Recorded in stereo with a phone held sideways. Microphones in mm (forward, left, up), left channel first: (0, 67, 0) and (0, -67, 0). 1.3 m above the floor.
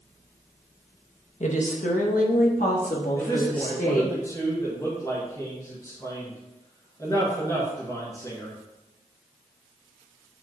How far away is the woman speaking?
About 1.2 m.